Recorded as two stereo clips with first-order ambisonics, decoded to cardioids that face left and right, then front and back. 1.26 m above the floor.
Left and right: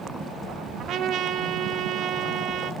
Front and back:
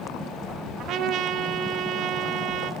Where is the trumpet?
135° right, 1.4 m.